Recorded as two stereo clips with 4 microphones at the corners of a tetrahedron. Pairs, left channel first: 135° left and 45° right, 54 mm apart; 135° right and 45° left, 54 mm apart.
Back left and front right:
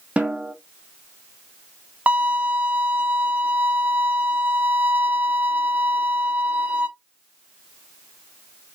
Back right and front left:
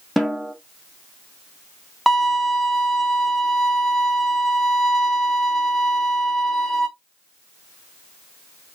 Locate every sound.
0.2 s a snare drum: 45° right, 1.4 m
2.1 s a violin: 55° right, 1.2 m